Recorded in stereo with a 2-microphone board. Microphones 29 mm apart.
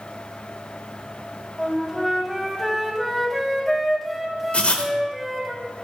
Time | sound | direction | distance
1.6 | a flute | 5° left (ahead or behind) | 0.9 m
4.5 | writing | 50° left (ahead or behind) | 0.8 m